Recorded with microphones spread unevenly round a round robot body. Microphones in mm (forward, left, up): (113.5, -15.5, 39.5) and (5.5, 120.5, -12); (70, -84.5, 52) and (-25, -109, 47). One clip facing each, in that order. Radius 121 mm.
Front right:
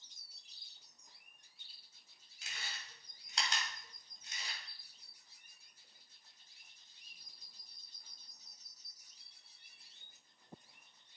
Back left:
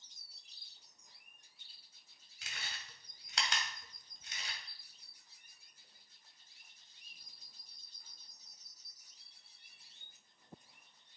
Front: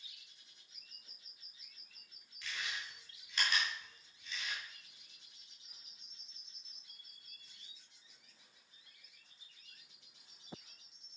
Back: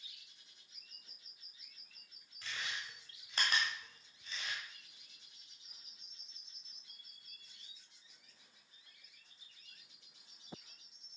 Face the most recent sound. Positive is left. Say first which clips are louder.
# even, even
turn(degrees=135)